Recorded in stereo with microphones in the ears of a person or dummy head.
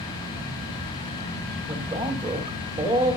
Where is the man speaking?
15° right (ahead or behind), 2.5 m.